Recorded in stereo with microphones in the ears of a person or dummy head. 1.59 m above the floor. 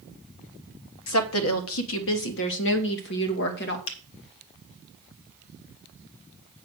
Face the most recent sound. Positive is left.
turn(degrees=75)  # may be behind; listen again after turning